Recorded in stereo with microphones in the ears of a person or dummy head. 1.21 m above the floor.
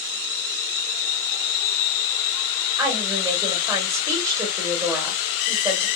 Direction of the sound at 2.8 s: 10° right (ahead or behind).